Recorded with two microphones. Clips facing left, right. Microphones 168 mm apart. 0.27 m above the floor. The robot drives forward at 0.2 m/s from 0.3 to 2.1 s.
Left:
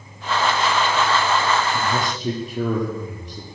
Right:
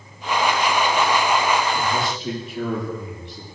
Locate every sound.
1.7 s a man speaking: 45° left (ahead or behind), 7.5 m